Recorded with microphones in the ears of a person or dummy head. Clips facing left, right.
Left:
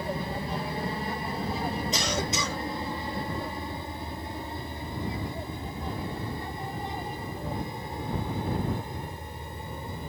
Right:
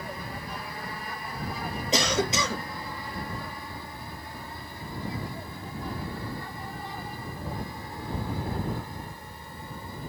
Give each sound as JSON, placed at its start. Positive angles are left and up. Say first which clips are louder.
{"t": 0.0, "sound": "an aircraft", "louder": "left 6 dB", "side_deg": 25}
{"t": 1.9, "sound": "a cough", "louder": "right 4 dB", "side_deg": -65}